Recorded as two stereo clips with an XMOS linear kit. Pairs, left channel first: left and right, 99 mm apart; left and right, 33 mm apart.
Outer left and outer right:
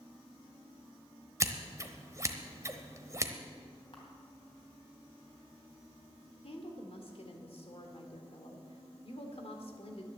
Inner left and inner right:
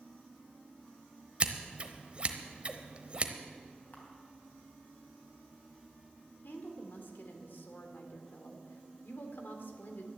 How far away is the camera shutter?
About 3 m.